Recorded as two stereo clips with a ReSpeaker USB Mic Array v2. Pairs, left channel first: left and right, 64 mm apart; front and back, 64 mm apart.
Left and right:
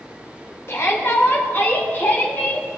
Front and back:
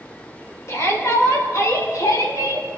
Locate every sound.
0.7 s a shout: 40° left, 4 m; by 2.7 s 25° left, 3 m